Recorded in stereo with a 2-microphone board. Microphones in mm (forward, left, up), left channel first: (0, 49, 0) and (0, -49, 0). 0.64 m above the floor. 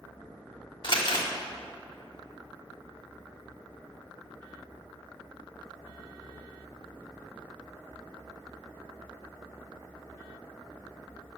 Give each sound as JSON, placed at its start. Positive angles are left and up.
{"t": 0.8, "sound": "crumpling", "side_deg": 55, "distance_m": 1.8}